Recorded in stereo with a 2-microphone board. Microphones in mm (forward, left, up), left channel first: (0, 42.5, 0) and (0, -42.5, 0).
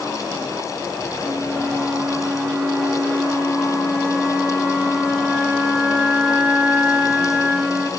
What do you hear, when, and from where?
1.2 s a flute: 10° right (ahead or behind), 4 m